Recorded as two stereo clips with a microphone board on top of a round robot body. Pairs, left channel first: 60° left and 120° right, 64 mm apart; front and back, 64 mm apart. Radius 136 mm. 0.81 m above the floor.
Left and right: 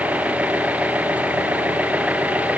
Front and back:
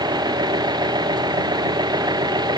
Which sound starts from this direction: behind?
An engine running, at 0.0 s.